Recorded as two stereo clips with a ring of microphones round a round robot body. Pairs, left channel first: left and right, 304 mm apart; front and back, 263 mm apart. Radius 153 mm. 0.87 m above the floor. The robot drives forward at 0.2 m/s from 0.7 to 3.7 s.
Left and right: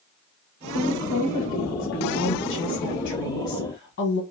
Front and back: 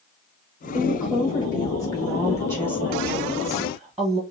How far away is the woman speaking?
About 1.1 m.